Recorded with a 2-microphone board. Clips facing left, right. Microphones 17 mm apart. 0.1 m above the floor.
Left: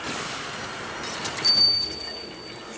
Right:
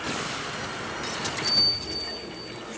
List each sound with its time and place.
1.4 s a bell: 30° left (ahead or behind), 5.5 m